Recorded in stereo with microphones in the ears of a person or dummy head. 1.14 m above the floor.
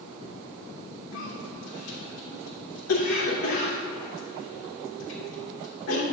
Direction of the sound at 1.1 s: 90° left.